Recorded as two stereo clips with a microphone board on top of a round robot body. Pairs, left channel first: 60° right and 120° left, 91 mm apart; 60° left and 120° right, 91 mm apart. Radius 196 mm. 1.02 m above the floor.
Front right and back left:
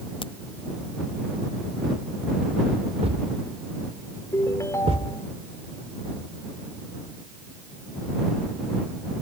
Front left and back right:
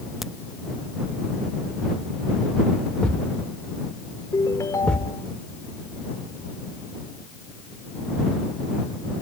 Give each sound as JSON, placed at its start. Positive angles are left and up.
{"t": 0.2, "sound": "a crack", "azimuth_deg": -35}
{"t": 3.0, "sound": "a thud", "azimuth_deg": 140}
{"t": 4.3, "sound": "a ringtone", "azimuth_deg": 0}